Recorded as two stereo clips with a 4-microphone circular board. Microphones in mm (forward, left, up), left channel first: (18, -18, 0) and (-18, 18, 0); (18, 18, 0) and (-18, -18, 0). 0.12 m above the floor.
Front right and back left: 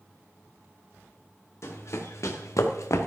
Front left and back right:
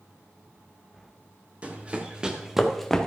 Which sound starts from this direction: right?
Running footsteps, at 1.6 s.